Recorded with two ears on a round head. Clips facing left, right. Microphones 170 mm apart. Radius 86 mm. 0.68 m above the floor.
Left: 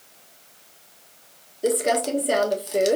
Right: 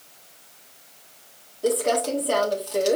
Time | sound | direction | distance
1.6 | crumpling | 20° left (ahead or behind) | 0.9 m